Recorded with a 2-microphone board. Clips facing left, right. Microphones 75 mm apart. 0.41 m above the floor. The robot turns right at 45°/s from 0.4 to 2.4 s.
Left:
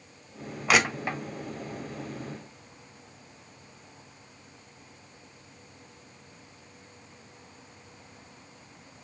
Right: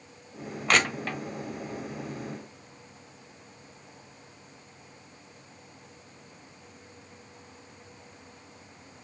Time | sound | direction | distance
0.7 | crushing | 5° left (ahead or behind) | 1.1 m